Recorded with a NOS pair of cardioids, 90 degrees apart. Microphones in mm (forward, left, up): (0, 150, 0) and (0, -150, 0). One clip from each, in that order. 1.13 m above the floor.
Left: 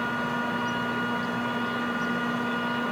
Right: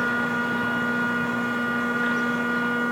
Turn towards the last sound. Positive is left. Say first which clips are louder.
# right 4 dB
turn(degrees=-35)